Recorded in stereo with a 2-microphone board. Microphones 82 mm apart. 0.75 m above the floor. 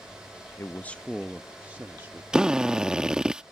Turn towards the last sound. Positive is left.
turn(degrees=-10)  # may be behind; listen again after turning